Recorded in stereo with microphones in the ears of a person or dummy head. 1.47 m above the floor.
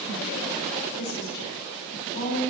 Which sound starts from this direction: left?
A woman speaking, at 1.0 s.